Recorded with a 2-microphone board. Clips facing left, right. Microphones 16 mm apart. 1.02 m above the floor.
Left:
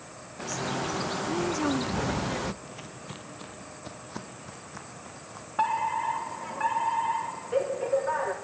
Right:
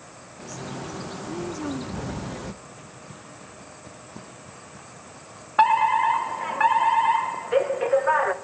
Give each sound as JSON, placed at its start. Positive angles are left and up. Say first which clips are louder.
{"t": 0.4, "sound": "a bird", "louder": "left 4 dB", "side_deg": 35, "distance_m": 0.6}
{"t": 2.6, "sound": "footsteps", "louder": "left 1 dB", "side_deg": 35, "distance_m": 1.2}
{"t": 5.6, "sound": "a fire alarm", "louder": "right 9 dB", "side_deg": -40, "distance_m": 1.3}